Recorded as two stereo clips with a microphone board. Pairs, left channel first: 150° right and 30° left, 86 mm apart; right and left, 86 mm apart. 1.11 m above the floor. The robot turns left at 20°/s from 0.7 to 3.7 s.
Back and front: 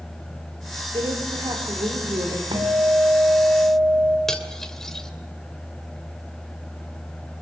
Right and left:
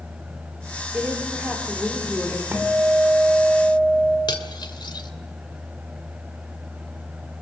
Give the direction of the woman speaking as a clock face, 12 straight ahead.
11 o'clock.